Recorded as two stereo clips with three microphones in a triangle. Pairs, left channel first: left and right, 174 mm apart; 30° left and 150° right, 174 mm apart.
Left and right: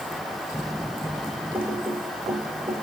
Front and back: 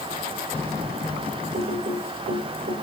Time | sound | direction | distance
1.5 | typing on a keyboard | 165° right | 4 m